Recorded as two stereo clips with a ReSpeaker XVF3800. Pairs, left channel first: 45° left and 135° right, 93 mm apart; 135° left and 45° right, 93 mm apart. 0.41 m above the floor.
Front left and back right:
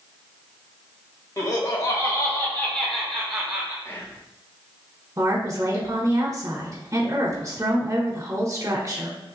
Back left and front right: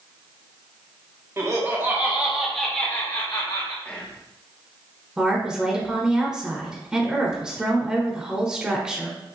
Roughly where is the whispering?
Left.